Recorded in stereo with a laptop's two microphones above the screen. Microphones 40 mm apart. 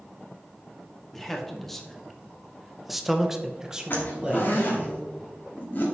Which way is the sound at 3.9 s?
45° left (ahead or behind).